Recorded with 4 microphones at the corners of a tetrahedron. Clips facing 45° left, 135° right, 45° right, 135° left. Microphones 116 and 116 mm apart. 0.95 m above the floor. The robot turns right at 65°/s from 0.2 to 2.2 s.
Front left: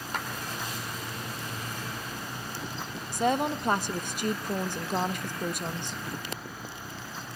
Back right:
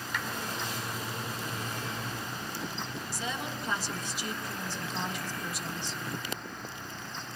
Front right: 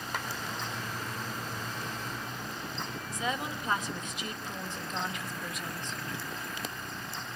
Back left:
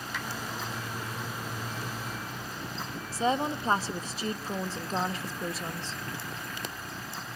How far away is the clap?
About 2.5 m.